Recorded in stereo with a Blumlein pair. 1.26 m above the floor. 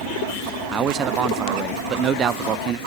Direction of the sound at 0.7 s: 25° right.